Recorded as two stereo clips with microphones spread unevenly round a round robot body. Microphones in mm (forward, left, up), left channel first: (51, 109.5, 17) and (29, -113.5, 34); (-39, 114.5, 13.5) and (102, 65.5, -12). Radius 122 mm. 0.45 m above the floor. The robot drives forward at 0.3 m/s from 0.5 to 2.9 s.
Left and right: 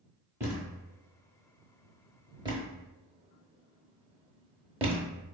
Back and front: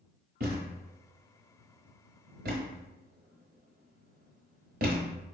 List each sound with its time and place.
0.4 s a thud: 15° right, 1.6 m; by 5.2 s 25° right, 1.0 m